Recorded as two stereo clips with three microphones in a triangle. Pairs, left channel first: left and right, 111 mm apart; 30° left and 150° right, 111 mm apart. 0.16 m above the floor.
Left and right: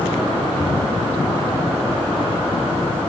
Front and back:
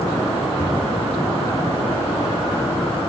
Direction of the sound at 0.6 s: 35° left.